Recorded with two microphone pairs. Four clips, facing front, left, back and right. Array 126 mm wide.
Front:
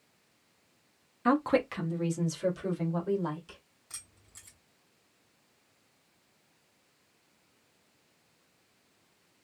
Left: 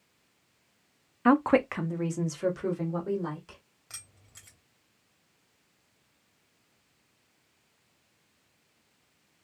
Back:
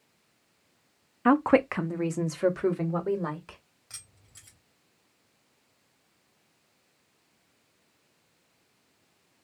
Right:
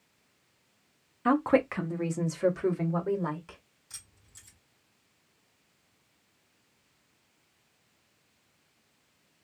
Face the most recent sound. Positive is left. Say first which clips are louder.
# left 5 dB, even
turn(degrees=105)